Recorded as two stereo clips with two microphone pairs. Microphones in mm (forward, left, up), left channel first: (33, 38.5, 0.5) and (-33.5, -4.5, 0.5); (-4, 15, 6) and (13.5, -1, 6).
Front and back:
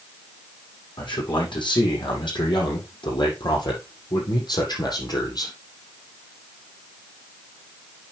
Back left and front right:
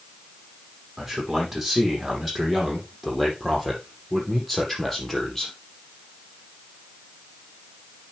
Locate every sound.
1.0 s a man speaking: 40° left, 5.5 m; by 5.5 s 65° left, 4 m